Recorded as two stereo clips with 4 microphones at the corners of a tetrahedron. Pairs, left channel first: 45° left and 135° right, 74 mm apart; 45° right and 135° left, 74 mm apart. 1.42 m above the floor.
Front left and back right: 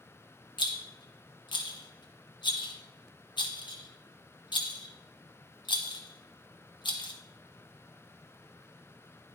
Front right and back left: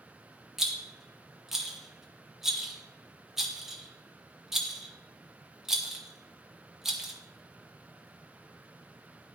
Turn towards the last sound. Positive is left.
turn(degrees=50)